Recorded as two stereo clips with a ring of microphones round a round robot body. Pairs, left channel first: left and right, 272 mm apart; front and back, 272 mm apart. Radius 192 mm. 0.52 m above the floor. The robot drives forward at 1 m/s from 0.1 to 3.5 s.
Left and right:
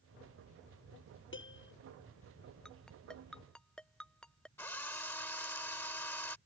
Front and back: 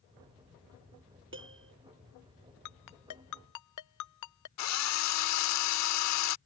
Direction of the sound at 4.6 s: 5° left.